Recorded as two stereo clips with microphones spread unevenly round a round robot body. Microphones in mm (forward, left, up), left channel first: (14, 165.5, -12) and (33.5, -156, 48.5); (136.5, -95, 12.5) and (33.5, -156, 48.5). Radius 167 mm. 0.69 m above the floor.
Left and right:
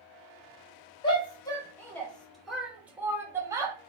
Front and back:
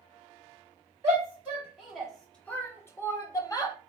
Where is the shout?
135° left, 0.9 m; by 3.8 s straight ahead, 1.3 m.